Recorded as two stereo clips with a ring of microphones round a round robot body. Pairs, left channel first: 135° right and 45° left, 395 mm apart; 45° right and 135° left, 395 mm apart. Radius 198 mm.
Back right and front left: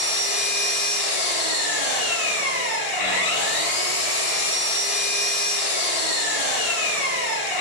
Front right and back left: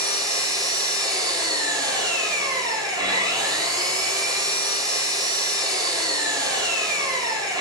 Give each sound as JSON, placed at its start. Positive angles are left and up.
{"t": 0.0, "sound": "an engine running", "azimuth_deg": -145, "distance_m": 5.0}